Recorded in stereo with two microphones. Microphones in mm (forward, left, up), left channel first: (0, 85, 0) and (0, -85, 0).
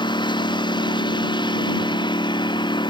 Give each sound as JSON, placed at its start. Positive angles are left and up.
{"t": 0.0, "sound": "a lawn mower", "side_deg": 25}